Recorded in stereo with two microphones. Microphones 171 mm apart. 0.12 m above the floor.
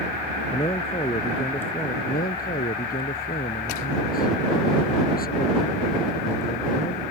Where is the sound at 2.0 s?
60° left (ahead or behind).